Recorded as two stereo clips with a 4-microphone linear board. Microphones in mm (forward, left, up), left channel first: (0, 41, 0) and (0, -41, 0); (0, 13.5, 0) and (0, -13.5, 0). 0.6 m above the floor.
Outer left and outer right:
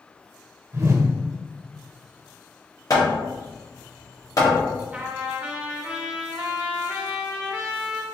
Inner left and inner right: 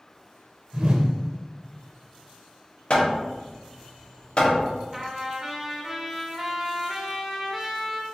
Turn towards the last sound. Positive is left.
turn(degrees=-15)  # may be behind; listen again after turning